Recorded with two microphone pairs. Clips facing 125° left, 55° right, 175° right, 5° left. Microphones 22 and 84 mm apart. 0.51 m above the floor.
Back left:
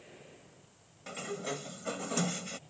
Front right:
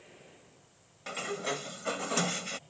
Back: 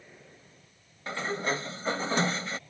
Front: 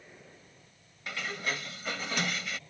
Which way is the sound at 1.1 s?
115° right.